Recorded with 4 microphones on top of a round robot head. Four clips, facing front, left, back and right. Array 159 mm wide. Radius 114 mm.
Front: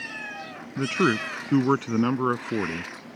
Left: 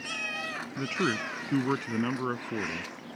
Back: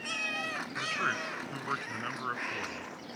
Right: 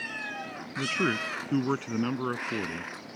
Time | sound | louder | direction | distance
0.8 | a man speaking | right 1 dB, front 12 dB | straight ahead | ?